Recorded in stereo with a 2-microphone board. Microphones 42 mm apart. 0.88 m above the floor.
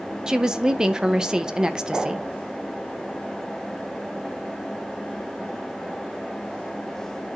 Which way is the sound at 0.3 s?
15° right (ahead or behind).